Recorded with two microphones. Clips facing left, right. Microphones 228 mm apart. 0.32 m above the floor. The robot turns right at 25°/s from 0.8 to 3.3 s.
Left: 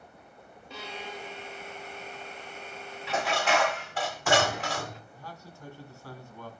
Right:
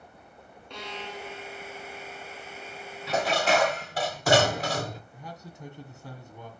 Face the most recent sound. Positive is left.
turn(degrees=-20)  # may be behind; listen again after turning